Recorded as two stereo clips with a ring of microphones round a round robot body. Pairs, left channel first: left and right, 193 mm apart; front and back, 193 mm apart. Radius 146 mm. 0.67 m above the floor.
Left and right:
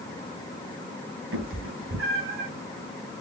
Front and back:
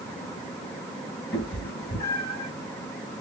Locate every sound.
1.3 s a cat meowing: 80° right, 1.6 m